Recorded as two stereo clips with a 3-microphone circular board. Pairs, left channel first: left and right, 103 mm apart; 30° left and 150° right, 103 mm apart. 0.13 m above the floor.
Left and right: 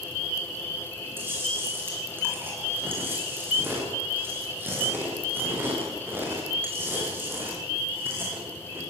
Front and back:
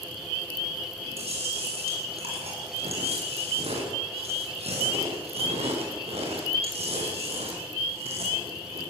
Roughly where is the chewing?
Behind.